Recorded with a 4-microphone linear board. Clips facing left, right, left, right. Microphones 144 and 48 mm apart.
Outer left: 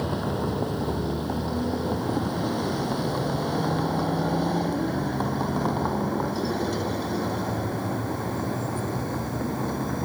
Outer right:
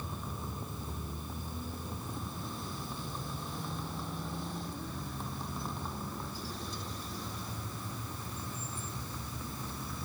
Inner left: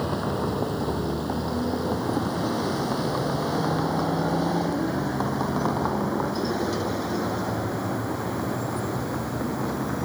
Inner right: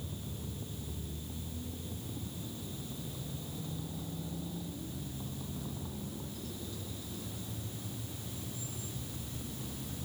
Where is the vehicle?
75° left (ahead or behind); by 10.1 s 65° left (ahead or behind).